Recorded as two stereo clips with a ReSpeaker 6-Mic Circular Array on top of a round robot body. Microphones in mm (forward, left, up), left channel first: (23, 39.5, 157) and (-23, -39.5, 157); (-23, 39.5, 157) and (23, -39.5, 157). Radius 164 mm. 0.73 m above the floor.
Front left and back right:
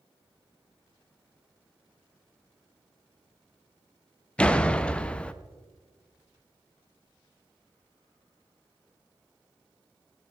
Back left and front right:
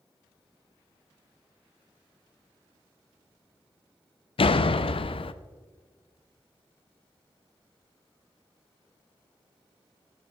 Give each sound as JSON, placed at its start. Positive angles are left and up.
{"t": 4.4, "sound": "a door slam", "azimuth_deg": 140, "distance_m": 0.5}